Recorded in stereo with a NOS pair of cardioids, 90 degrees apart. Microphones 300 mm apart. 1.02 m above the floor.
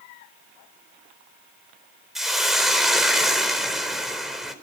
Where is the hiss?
Straight ahead, 4 m.